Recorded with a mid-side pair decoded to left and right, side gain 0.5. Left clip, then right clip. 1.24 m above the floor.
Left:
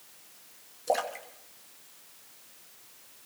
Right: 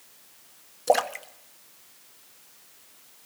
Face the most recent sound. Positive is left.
turn(degrees=-45)